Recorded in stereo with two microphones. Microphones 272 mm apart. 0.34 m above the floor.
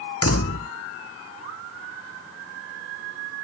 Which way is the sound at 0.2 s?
60° left (ahead or behind).